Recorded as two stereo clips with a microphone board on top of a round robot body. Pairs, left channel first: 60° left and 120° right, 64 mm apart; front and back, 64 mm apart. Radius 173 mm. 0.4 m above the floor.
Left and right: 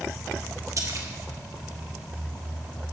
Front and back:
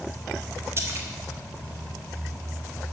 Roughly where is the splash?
Behind right.